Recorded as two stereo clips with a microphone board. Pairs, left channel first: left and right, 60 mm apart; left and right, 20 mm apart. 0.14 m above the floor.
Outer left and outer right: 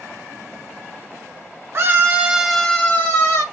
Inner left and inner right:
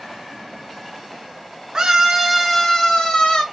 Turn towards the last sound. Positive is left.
turn(degrees=50)  # may be behind; listen again after turning